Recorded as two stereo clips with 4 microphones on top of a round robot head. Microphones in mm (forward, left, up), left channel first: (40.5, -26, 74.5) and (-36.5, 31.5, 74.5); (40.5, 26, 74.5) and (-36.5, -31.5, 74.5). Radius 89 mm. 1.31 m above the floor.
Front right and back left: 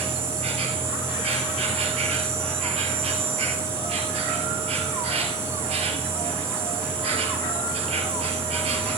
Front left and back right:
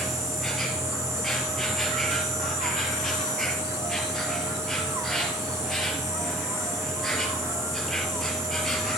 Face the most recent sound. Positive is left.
turn(degrees=125)